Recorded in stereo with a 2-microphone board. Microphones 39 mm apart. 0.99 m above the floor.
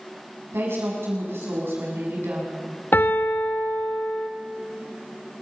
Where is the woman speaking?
85° right, 7 m.